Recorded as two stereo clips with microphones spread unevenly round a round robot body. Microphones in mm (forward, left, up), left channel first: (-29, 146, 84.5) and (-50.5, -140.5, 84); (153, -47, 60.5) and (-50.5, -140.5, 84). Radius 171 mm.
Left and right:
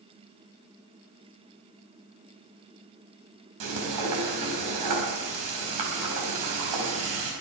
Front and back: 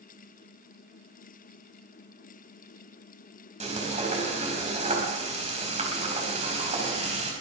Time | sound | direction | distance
3.6 | frying | 100° right | 5 m